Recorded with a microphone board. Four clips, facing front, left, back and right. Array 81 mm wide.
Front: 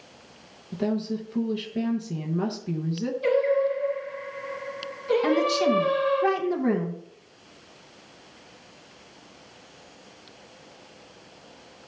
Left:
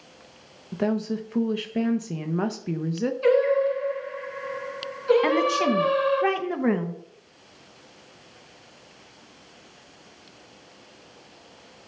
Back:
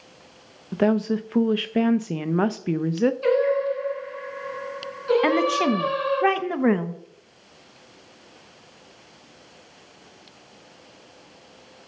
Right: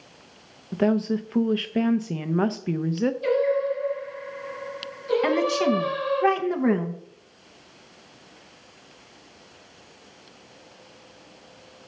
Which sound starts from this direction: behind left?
Singing, at 3.2 s.